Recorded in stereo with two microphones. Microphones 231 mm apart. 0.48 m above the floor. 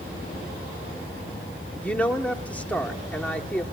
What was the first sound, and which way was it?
A woman speaking, 5° left (ahead or behind).